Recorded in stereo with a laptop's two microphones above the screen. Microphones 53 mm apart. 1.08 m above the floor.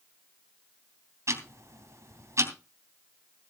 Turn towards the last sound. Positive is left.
turn(degrees=-65)  # may be behind; listen again after turning